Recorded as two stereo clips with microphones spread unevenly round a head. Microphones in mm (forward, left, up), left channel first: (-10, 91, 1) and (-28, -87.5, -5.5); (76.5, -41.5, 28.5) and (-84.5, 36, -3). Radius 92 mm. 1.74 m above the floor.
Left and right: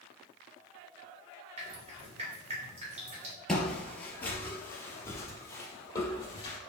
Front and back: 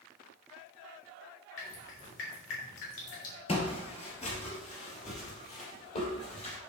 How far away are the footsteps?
About 2.5 m.